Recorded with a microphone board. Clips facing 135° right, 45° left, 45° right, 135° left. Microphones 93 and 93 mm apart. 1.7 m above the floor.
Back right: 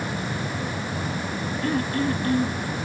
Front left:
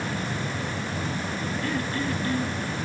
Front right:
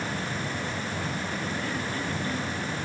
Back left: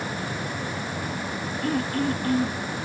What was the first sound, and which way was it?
Throat clearing, 175° left.